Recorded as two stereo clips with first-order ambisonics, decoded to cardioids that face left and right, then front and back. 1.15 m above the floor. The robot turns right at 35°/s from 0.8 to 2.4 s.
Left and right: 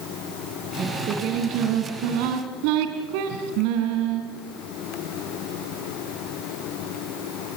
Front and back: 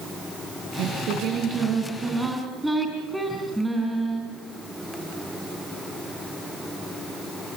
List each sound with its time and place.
0.8 s singing: 145° right, 3.5 m; by 4.2 s 90° right, 3.5 m